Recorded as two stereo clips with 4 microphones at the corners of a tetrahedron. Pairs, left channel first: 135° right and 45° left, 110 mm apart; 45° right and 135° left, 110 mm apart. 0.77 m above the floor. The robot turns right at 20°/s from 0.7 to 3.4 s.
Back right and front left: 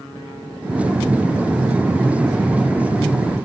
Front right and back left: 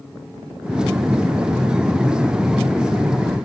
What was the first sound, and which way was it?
Only background noise.